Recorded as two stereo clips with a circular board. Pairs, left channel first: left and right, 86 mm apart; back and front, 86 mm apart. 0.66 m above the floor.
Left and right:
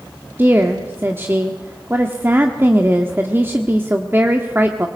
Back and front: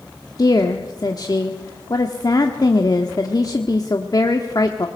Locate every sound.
0.4 s a woman speaking: 150° right, 1.2 m